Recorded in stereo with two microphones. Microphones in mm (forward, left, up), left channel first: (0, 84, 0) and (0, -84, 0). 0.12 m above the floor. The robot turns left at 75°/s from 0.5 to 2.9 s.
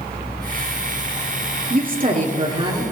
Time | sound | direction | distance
1.7 | a woman speaking | 70° right | 2.5 m